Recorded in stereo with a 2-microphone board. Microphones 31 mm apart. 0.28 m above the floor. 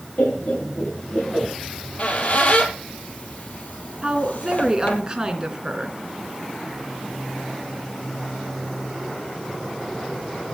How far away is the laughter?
About 5 m.